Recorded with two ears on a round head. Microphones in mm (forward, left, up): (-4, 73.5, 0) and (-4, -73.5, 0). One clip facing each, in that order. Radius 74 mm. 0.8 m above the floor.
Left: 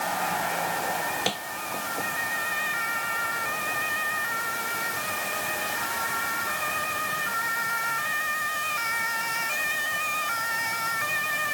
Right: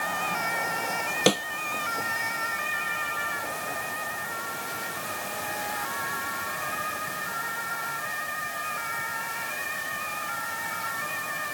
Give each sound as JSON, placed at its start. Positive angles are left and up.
{"t": 1.3, "sound": "a snare drum", "side_deg": -60}